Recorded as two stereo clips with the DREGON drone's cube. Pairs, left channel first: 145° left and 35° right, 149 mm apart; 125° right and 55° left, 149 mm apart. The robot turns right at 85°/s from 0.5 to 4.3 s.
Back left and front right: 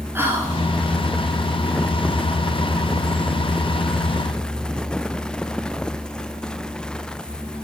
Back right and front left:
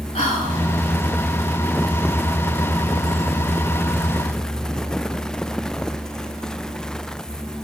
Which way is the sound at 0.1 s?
100° right.